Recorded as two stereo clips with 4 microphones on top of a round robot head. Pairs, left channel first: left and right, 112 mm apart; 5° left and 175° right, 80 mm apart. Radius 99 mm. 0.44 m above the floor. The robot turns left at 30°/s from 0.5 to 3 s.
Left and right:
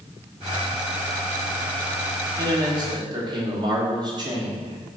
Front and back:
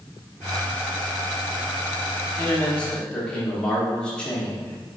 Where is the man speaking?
50° right, 0.9 m; by 5.0 s 70° right, 0.9 m.